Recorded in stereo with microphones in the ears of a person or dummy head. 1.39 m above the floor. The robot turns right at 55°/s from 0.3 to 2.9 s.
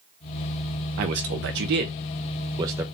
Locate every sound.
1.0 s a man speaking: 50° right (ahead or behind), 0.5 m; by 2.8 s 15° right (ahead or behind), 0.5 m